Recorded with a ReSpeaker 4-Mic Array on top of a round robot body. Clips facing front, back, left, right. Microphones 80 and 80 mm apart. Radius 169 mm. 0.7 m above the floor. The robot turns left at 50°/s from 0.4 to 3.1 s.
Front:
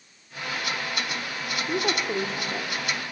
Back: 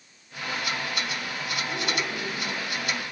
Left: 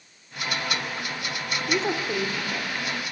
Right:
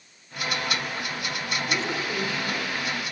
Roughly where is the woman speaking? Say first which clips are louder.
Front 6 dB, left 5 dB; ahead left.